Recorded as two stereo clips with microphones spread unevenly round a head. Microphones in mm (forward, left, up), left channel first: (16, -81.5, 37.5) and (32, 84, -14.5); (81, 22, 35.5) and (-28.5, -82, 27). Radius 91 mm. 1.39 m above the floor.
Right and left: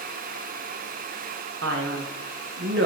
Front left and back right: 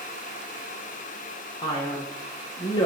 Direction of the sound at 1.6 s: 110° left.